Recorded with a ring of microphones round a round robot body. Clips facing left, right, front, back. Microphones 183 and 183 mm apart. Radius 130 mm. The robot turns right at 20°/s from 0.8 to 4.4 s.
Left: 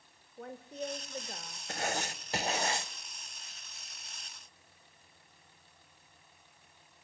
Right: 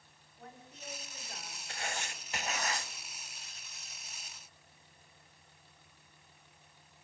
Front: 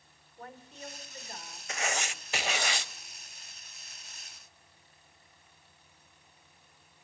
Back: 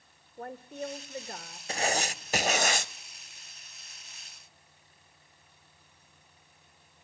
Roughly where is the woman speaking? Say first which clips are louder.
Left 12 dB, back 9 dB; behind left.